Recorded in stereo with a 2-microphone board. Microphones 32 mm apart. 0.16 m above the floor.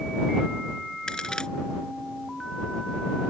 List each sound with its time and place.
1.1 s a crack: 25° left (ahead or behind)